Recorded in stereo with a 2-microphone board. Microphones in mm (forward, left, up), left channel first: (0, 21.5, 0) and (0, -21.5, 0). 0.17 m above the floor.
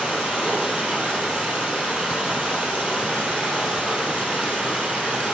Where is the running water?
25° right (ahead or behind), 1.4 m.